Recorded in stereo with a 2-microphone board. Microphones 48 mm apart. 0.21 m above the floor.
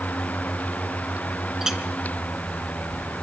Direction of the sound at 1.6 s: 10° right (ahead or behind).